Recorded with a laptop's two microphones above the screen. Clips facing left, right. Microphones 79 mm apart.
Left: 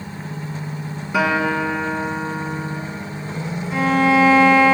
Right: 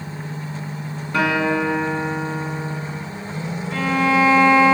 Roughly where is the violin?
Centre.